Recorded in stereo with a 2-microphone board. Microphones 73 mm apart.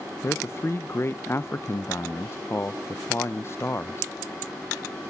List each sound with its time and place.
0.2 s a man speaking: 35° left (ahead or behind), 0.5 m